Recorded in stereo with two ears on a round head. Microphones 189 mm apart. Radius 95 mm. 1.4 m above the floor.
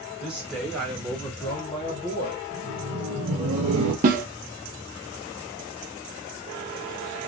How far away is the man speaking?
About 1.9 m.